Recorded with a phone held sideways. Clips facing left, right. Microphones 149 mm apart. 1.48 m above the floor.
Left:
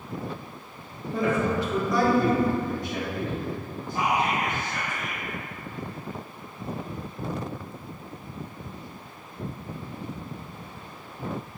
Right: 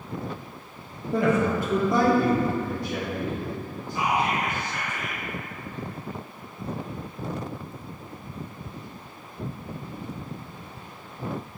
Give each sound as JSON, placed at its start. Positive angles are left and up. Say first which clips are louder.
{"t": 1.1, "sound": "a man speaking", "louder": "right 2 dB", "side_deg": -75, "distance_m": 0.7}
{"t": 3.9, "sound": "whispering", "louder": "even", "side_deg": 50, "distance_m": 0.5}